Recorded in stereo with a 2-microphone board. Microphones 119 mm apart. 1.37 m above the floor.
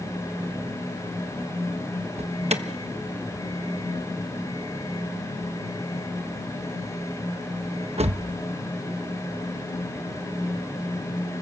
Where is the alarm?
65° right (ahead or behind), 1.1 m.